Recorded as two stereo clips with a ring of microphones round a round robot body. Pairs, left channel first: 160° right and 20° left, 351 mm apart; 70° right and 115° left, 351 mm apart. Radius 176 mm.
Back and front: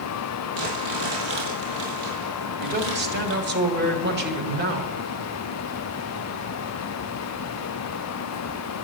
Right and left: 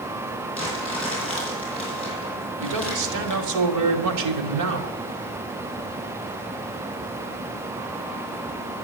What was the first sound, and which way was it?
Crumpling, 5° left.